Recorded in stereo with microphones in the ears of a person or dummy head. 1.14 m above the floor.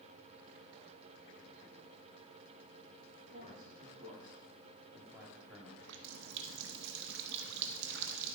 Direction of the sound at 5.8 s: 70° right (ahead or behind).